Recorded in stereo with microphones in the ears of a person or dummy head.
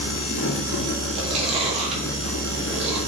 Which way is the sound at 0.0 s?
75° left (ahead or behind).